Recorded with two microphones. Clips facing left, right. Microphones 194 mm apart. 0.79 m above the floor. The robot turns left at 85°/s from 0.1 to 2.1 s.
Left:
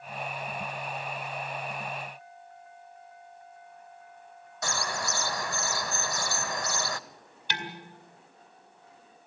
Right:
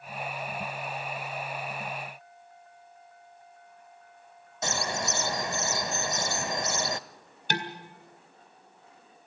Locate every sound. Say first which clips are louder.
4.6 s a bird: right 2 dB; 20° right (ahead or behind), 0.6 m
7.5 s dishes clattering: right 5 dB; 45° right (ahead or behind), 2.0 m